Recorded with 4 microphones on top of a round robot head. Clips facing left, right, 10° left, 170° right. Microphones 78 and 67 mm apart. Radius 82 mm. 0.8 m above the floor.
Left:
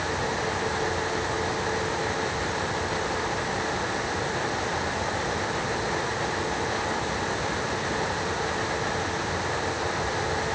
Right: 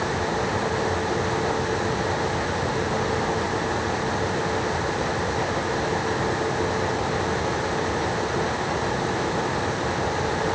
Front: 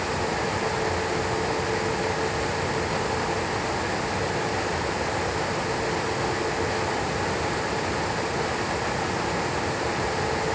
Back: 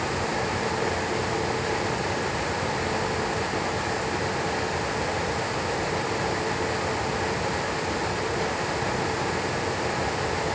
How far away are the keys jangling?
I don't hear keys jangling.